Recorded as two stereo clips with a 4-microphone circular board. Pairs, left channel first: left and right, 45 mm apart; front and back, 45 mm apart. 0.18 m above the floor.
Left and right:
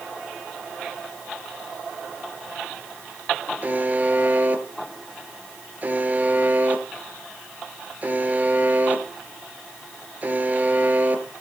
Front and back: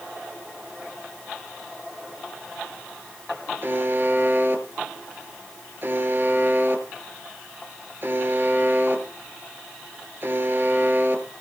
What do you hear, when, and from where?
3.6 s a buzzer: 140° right, 2.5 m